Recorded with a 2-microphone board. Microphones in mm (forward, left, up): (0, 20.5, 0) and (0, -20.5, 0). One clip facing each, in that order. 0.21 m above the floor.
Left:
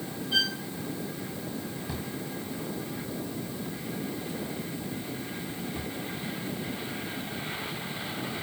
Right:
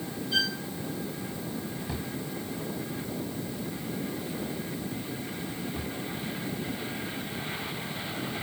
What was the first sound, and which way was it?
A violin, 25° left (ahead or behind).